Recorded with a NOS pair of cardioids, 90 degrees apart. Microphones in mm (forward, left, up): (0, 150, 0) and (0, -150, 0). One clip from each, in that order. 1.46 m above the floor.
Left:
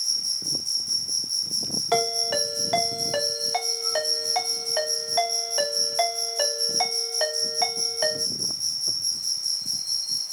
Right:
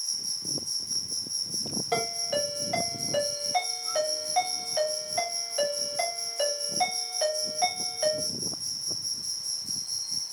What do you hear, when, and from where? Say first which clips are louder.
0.0 s an insect: left 6 dB; 60° left, 1.5 m
1.9 s a ringtone: left 5 dB; 60° left, 1.4 m